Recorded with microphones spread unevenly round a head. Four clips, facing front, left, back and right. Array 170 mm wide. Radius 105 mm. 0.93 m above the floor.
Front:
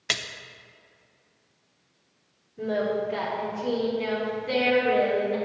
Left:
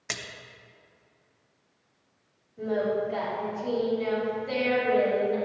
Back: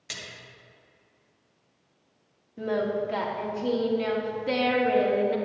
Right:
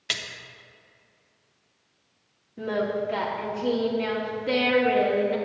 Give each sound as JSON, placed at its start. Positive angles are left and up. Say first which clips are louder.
{"t": 0.1, "sound": "a splash", "louder": "right 2 dB, front 10 dB", "azimuth_deg": 0, "distance_m": 0.6}
{"t": 2.6, "sound": "singing", "louder": "even, front 1 dB", "azimuth_deg": -120, "distance_m": 2.0}